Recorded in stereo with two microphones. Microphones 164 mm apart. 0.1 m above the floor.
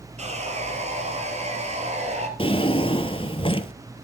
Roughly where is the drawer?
Left.